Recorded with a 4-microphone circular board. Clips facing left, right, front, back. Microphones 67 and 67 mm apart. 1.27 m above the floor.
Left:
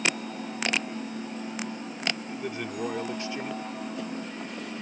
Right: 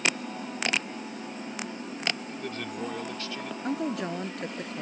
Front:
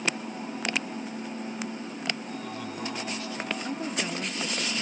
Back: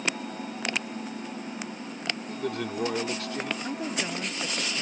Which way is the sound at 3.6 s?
95° right.